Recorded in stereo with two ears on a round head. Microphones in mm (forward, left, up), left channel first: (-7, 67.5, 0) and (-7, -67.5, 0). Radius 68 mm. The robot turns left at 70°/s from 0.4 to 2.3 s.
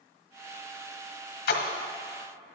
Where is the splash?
70° left (ahead or behind), 1.5 m; by 1.7 s 60° left (ahead or behind), 1.5 m.